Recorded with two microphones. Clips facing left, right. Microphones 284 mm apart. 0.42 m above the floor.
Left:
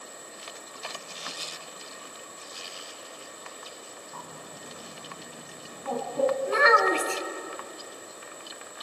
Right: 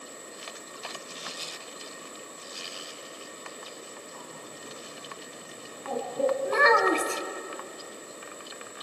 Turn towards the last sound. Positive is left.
turn(degrees=-55)  # may be behind; listen again after turning